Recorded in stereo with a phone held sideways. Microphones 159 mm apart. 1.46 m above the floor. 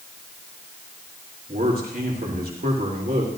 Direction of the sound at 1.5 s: 70° right (ahead or behind).